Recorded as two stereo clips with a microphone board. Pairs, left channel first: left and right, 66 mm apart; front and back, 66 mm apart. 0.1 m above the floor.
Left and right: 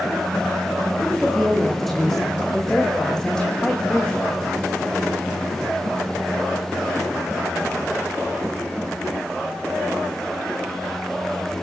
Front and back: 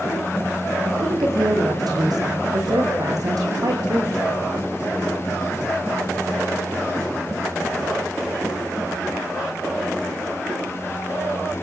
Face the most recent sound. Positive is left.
turn(degrees=165)